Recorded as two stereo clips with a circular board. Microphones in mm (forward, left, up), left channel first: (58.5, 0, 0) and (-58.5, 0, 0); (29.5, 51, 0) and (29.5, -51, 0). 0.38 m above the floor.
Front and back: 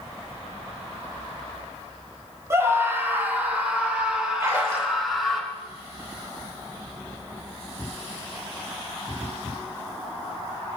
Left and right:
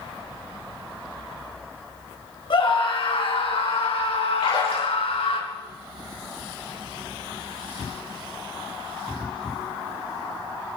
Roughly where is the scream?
Behind left.